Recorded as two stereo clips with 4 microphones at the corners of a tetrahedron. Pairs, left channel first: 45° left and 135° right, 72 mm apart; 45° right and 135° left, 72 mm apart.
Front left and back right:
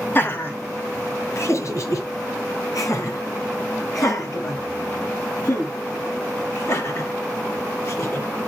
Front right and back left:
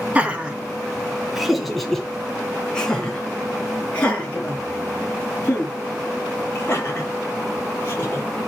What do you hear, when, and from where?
0.1 s laughter: 80° left, 1.8 m; by 8.3 s 10° left, 5.5 m